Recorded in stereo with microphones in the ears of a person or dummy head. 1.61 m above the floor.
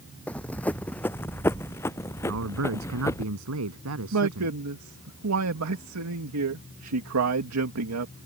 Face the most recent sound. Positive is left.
turn(degrees=-80)